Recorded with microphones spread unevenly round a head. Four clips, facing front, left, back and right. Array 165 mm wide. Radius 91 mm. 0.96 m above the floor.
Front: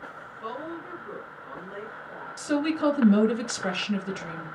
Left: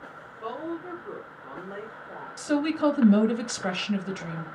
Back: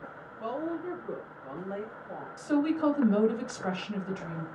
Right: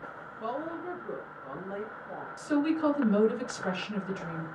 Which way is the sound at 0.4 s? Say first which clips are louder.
Left 1 dB, back 3 dB; 145° right.